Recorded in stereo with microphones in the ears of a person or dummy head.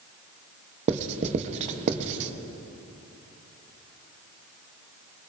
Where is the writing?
40° right (ahead or behind), 0.7 m.